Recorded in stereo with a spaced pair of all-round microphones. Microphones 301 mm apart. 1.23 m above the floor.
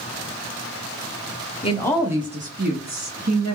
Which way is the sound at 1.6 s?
20° left (ahead or behind).